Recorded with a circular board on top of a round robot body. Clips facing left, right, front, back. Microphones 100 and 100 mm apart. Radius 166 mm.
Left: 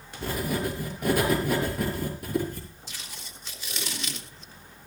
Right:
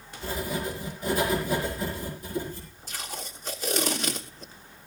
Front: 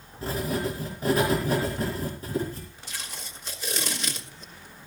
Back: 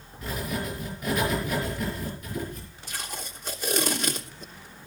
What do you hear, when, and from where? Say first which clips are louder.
0.2 s writing: left 2 dB, front 4 dB; 60° left, 6 m
2.9 s tape being pulled: right 7 dB, back 7 dB; 135° right, 3 m